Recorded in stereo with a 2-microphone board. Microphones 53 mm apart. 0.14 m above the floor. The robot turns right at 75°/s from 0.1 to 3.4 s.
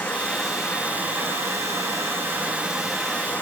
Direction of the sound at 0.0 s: 150° left.